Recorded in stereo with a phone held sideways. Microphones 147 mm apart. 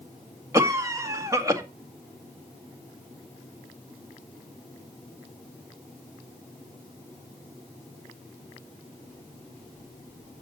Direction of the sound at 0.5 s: 20° right (ahead or behind).